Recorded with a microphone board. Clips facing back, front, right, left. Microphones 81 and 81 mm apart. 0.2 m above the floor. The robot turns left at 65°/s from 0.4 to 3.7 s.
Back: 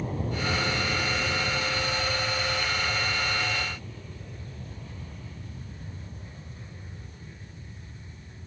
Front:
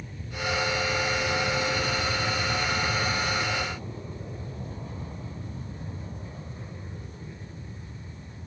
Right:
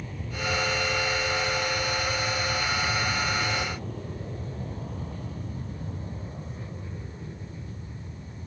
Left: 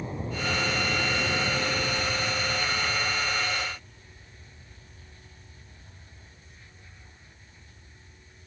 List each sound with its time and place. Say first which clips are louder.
0.0 s an aircraft: back 4 dB, left 1 dB; 150° left; by 8.5 s 60° right